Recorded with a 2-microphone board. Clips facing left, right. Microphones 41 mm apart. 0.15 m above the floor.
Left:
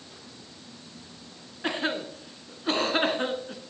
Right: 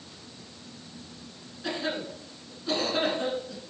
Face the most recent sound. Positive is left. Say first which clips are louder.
# left 3 dB
turn(degrees=45)  # may be behind; listen again after turning